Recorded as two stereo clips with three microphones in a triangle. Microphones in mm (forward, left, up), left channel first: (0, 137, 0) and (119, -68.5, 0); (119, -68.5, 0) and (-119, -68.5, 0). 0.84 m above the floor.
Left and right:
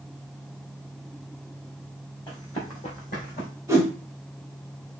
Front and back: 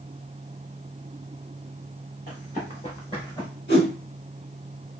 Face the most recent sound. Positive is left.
turn(degrees=15)